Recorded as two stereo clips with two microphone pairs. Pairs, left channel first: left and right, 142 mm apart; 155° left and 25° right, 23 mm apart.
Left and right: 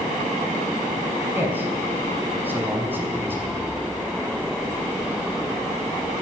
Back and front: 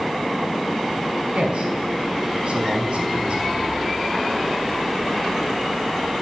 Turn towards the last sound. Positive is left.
turn(degrees=-20)